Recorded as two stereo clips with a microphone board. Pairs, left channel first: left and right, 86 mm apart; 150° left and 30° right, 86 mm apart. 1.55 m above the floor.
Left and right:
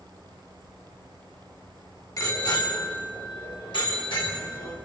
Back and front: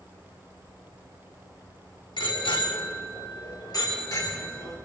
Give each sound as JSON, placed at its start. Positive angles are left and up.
{"t": 2.2, "sound": "a bicycle bell", "azimuth_deg": 135, "distance_m": 3.0}